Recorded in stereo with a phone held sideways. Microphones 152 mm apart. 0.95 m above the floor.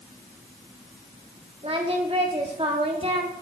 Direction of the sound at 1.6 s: 40° right (ahead or behind).